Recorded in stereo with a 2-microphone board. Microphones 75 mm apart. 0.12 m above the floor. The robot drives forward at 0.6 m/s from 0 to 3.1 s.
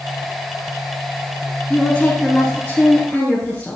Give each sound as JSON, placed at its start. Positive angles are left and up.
{"t": 1.7, "sound": "a woman speaking", "side_deg": 15, "distance_m": 1.1}